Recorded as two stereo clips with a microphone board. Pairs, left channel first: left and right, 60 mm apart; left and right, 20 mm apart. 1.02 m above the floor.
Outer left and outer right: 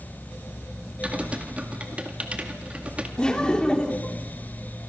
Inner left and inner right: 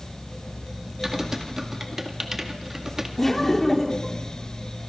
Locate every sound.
1.0 s typing on a keyboard: 20° right (ahead or behind), 2 m
3.2 s laughter: 15° left (ahead or behind), 2.5 m